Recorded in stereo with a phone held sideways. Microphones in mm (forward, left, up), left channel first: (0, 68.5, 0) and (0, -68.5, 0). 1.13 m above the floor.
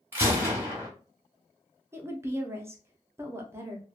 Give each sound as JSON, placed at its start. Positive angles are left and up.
{"t": 0.1, "sound": "a gunshot", "side_deg": -15, "distance_m": 1.2}
{"t": 1.9, "sound": "a woman speaking", "side_deg": -20, "distance_m": 0.7}